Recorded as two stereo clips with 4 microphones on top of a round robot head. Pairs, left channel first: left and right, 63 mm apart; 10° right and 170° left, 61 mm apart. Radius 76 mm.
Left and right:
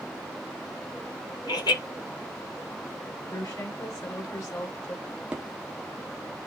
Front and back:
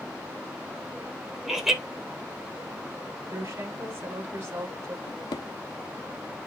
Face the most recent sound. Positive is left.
turn(degrees=-15)